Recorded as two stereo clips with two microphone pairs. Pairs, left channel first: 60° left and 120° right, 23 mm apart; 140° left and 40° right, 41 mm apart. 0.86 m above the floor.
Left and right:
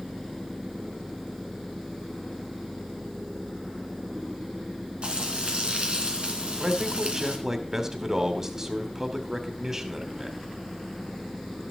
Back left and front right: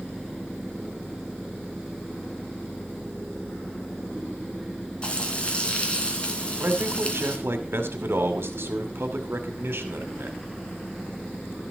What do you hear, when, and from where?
5.0 s frying: 155° right, 2.5 m
6.6 s a man speaking: 50° right, 2.5 m